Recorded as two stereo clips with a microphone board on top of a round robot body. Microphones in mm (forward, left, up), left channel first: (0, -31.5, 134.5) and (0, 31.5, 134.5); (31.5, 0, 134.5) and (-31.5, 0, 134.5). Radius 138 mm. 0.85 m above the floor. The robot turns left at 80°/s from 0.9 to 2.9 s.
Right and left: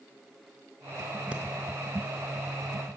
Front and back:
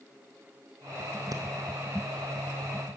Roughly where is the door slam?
No door slam in this recording.